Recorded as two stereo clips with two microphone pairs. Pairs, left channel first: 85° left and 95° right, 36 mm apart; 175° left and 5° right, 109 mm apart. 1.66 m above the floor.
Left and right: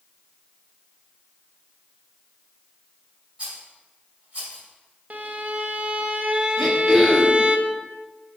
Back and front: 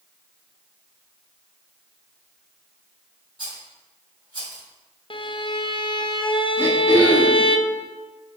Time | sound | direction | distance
3.4 | a rattle | 35° right | 2.5 m
5.1 | a violin | 145° right | 0.5 m
6.6 | throat clearing | straight ahead | 1.3 m